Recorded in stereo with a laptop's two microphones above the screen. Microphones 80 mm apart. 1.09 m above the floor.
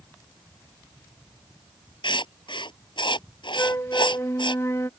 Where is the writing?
80° left.